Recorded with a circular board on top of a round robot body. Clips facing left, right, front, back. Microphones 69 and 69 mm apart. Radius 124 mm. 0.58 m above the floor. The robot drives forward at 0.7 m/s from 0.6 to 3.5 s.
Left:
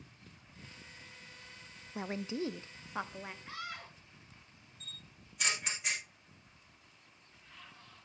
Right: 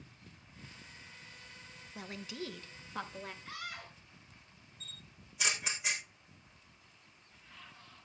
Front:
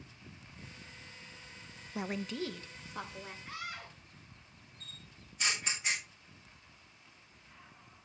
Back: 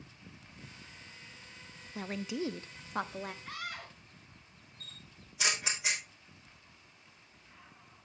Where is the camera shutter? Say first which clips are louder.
Left 1 dB, back 1 dB; 175° right, 5 m.